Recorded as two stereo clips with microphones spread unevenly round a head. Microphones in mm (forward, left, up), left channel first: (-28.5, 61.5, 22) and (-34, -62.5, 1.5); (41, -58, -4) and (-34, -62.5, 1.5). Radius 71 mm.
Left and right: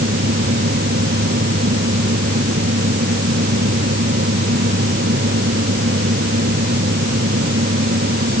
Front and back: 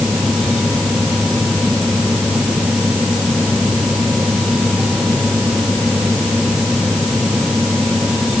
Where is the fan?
85° right.